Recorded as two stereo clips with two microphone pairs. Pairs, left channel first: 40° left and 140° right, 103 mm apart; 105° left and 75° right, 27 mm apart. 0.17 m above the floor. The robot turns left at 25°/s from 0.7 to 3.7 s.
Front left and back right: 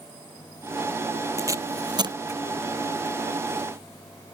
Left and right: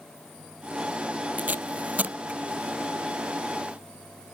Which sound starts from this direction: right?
Tape being pulled, at 1.4 s.